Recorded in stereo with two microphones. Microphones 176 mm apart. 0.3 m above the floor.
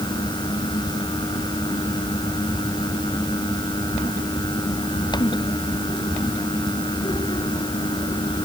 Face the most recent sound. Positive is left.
No sound to turn to.